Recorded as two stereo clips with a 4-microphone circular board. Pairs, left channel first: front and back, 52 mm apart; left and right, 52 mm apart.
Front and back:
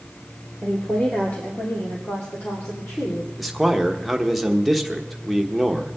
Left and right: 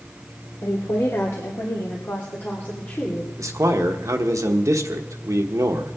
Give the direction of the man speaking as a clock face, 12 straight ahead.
3 o'clock.